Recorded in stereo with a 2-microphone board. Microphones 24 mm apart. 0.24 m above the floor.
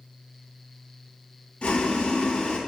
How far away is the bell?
I don't hear a bell.